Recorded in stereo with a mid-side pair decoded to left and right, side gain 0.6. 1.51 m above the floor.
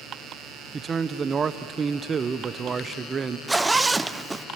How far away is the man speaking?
About 0.7 m.